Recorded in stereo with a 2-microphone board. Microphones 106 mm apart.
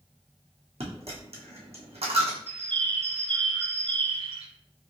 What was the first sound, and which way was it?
A dropped coin, 75° right (ahead or behind).